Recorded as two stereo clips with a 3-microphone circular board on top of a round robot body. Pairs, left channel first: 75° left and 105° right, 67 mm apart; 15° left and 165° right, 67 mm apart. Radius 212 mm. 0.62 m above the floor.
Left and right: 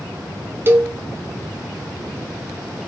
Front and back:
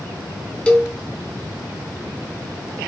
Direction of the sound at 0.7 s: 55° right.